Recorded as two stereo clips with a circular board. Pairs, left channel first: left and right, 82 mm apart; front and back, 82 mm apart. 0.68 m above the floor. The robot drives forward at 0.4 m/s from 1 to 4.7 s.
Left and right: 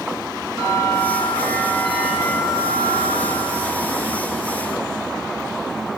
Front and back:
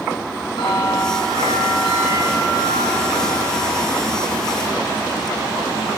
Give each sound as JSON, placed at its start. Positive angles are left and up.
{"t": 0.6, "sound": "a bell", "azimuth_deg": 0, "distance_m": 5.0}